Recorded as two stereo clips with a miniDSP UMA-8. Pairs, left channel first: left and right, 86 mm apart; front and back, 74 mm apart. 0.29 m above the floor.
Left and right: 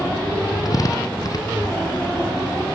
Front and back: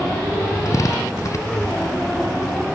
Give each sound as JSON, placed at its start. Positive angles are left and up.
{"t": 0.7, "sound": "a drill", "azimuth_deg": 45}